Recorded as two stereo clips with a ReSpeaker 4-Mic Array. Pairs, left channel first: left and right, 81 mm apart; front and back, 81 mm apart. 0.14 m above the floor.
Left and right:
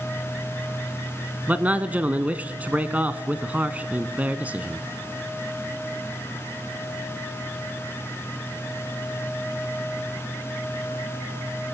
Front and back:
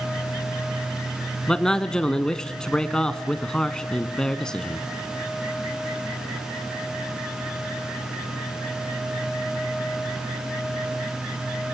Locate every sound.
1.5 s a man speaking: 65° right, 1.1 m